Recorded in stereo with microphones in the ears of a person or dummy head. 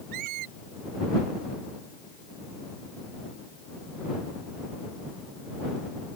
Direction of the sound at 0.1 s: 50° right (ahead or behind).